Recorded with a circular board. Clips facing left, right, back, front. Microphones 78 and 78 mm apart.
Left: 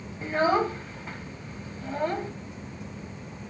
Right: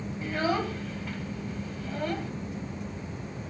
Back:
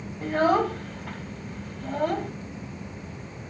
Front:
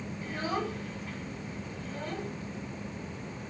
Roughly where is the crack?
I don't hear a crack.